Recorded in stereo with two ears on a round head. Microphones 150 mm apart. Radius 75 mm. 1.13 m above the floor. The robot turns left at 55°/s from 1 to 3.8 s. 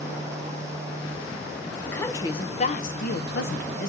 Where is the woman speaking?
175° left, 0.9 m; by 3.9 s 65° left, 0.9 m.